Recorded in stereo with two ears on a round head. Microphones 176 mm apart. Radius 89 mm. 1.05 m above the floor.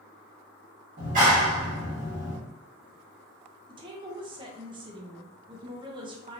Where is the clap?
40° right (ahead or behind), 1.5 m.